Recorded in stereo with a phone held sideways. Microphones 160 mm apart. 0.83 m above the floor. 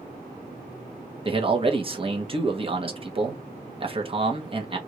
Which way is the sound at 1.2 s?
35° right (ahead or behind).